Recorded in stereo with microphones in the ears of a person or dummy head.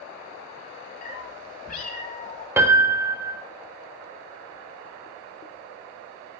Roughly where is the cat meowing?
Left.